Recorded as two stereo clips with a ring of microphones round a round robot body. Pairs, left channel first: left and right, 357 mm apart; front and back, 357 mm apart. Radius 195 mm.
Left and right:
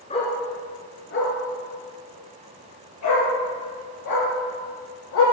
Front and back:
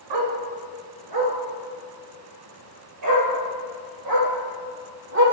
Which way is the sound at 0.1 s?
165° left.